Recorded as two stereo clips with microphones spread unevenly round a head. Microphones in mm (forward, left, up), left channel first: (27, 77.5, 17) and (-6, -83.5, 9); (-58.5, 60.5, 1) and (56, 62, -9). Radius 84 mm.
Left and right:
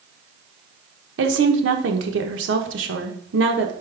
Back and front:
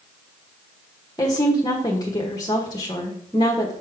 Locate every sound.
1.2 s a woman speaking: 110° right, 1.1 m